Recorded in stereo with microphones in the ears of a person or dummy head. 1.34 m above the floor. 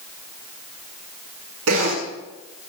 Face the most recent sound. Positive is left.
turn(degrees=-80)